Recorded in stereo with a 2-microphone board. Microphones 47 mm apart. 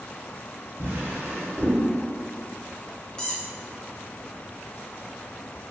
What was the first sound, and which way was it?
A drawer, 55° right (ahead or behind).